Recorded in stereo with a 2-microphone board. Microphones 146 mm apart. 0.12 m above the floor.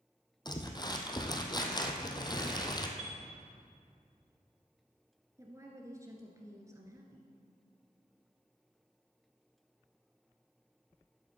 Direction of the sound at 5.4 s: 20° right (ahead or behind).